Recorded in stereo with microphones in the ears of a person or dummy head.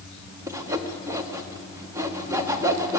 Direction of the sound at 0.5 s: 20° right (ahead or behind).